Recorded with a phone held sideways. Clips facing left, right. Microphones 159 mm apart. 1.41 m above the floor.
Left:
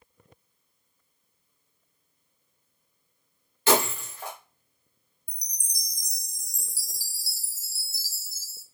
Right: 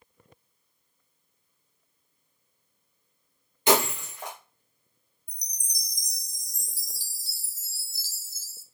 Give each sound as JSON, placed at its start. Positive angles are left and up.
{"t": 3.7, "sound": "breaking glass", "side_deg": -20, "distance_m": 1.5}
{"t": 5.3, "sound": "a chime", "side_deg": 10, "distance_m": 0.6}